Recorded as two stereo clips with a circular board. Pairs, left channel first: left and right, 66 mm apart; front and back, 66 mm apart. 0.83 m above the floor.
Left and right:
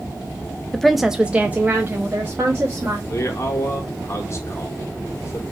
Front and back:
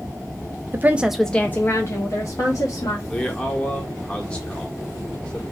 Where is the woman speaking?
170° left, 0.6 m; by 3.0 s 30° right, 1.5 m.